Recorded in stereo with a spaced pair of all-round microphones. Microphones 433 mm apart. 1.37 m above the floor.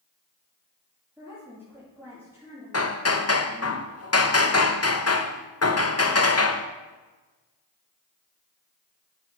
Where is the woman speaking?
5° right (ahead or behind), 3 m.